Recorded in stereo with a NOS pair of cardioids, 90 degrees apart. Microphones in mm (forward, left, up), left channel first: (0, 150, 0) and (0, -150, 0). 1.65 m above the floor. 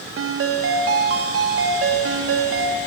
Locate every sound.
0.2 s a ringtone: 50° right, 1.6 m